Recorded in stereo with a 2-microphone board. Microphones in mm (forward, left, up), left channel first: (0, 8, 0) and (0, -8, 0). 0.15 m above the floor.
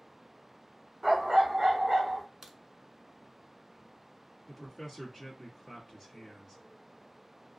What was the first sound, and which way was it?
A dog barking, 35° right (ahead or behind).